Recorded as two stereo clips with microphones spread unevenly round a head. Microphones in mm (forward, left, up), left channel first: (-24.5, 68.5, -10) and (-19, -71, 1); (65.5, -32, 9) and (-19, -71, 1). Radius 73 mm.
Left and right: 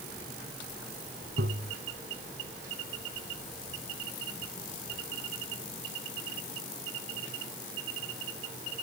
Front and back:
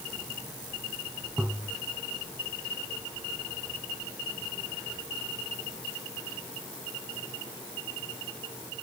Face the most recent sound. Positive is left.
turn(degrees=-80)